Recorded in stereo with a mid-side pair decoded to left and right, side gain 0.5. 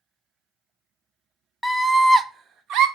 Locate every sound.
1.6 s a scream: 10° left, 0.6 m; by 2.9 s 80° right, 0.7 m